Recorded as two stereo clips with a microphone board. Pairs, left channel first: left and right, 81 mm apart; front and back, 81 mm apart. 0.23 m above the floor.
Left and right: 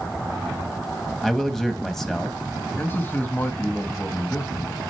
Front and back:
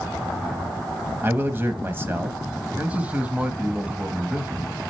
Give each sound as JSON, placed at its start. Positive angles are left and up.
{"t": 1.2, "sound": "a man speaking", "azimuth_deg": 170, "distance_m": 1.0}
{"t": 2.8, "sound": "a man speaking", "azimuth_deg": 125, "distance_m": 1.1}